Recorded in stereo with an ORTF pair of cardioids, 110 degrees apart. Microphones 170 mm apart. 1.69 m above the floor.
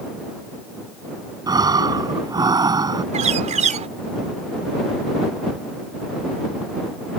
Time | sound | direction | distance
1.5 | breathing | 25° right | ?
3.1 | a bird | 45° right | ?